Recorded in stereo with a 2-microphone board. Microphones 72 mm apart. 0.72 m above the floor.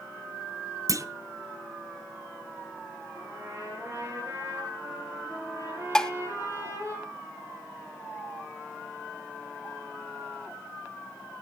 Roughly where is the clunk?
Right.